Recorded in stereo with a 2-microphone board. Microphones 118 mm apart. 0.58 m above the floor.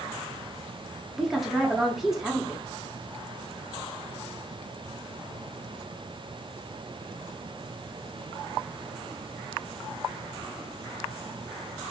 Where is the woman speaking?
Centre (ahead or behind), 0.8 m.